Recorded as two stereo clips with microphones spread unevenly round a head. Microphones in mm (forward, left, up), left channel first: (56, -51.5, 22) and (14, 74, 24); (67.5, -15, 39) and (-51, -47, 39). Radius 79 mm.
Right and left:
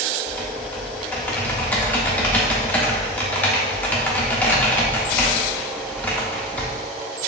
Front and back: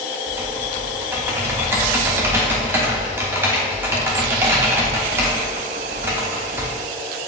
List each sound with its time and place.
0.3 s typing on a keyboard: 130° right, 0.6 m